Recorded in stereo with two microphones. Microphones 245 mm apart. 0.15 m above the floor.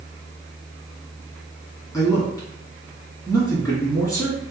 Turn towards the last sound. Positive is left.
turn(degrees=15)  # may be behind; listen again after turning